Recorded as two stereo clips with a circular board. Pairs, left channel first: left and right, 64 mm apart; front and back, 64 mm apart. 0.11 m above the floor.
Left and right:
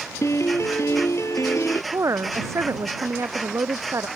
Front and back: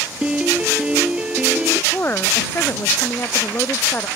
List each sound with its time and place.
0.2 s a piano: 110° left
1.9 s a woman speaking: 55° right